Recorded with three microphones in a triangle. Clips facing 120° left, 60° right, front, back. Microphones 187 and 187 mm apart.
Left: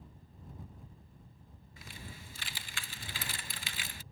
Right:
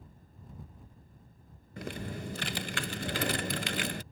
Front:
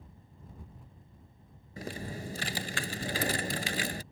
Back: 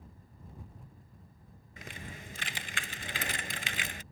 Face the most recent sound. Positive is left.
turn(degrees=-50)